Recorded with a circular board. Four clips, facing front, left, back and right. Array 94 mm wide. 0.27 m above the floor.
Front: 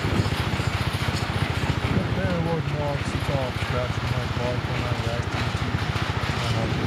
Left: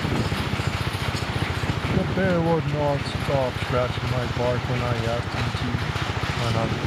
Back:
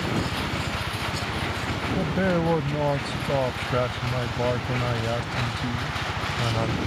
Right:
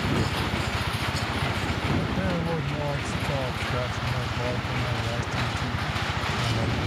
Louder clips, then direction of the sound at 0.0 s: Left 1 dB, front 1 dB; 55° left.